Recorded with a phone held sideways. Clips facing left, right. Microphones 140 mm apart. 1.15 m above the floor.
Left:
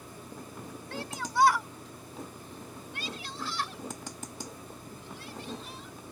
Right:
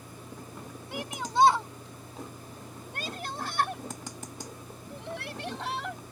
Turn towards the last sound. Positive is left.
turn(degrees=-80)